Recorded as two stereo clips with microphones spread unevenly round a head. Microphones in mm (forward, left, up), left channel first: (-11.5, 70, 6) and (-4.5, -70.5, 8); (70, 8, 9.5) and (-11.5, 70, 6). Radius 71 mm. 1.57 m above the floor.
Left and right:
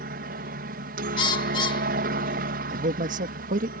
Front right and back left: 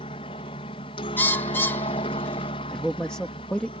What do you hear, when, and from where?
0.0 s a helicopter: 80° right
1.2 s a bird: 35° left
2.7 s a man speaking: 120° right